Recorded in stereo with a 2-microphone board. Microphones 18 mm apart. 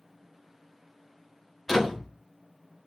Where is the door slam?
10° left (ahead or behind), 3.5 m.